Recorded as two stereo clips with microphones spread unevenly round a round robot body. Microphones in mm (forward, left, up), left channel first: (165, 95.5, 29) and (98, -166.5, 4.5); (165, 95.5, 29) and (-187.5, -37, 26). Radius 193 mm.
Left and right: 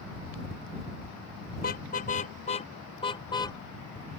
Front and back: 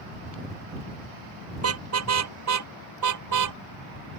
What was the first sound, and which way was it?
A car horn, 145° left.